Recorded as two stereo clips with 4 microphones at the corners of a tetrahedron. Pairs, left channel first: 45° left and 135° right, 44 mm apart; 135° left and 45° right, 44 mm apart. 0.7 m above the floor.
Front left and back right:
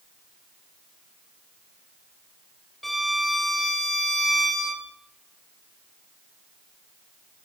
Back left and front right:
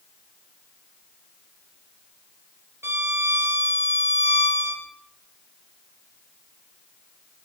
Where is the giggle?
No giggle in this recording.